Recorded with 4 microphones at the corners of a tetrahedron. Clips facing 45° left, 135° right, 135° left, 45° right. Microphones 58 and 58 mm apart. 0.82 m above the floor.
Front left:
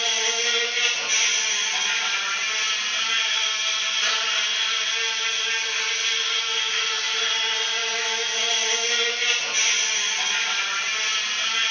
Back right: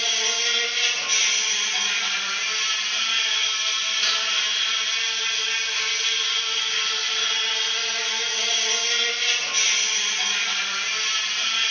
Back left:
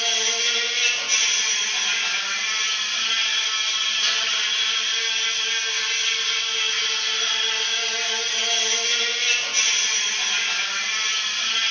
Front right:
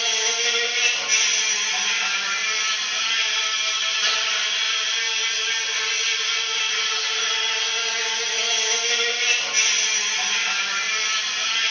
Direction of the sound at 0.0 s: 20° right.